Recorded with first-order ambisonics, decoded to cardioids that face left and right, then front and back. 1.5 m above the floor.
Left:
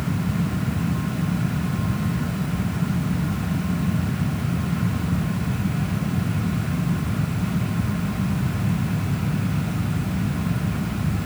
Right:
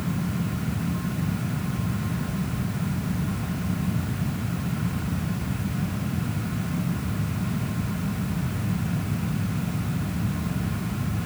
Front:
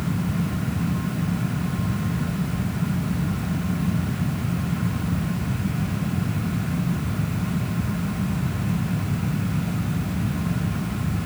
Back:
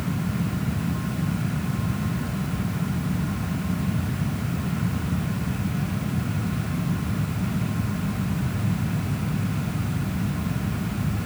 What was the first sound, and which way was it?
Only background noise.